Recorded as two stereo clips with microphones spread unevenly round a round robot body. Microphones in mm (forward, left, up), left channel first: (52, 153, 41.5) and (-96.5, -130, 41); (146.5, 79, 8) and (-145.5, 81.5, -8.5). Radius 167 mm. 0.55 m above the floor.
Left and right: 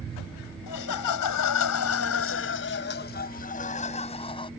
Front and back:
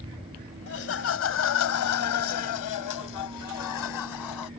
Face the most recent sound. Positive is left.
turn(degrees=-15)